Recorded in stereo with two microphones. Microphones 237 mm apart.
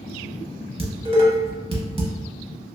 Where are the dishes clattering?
25° right (ahead or behind), 0.7 m.